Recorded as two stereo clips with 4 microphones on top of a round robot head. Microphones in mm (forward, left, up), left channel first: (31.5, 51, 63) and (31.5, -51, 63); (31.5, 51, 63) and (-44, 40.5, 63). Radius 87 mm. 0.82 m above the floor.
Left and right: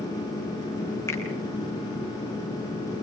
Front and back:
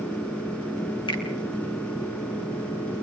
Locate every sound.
1.1 s a finger snap: 25° left, 6.5 m